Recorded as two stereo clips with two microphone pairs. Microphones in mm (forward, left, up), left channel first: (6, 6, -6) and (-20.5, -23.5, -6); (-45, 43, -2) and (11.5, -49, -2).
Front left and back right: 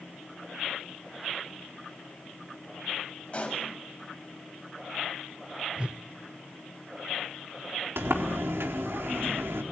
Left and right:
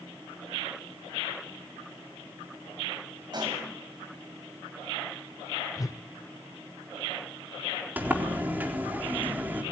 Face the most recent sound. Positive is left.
turn(degrees=-130)